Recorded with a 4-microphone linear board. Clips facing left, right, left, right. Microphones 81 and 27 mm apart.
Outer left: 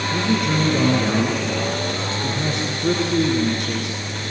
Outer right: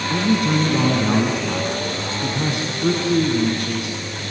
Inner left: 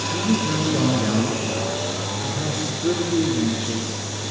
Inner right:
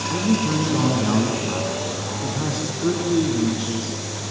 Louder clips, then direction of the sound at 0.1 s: Outer right 3 dB, inner right 2 dB; 70° right (ahead or behind).